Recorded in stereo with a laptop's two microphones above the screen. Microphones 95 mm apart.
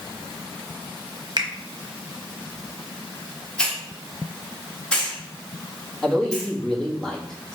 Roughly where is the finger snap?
Right.